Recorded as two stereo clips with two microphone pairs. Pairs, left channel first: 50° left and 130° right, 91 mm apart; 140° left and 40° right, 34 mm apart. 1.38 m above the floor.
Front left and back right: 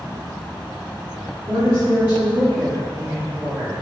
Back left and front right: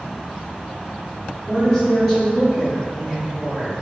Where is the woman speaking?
125° right, 1.9 m.